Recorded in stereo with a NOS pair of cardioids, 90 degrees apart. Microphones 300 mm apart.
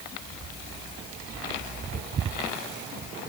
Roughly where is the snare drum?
I don't hear a snare drum.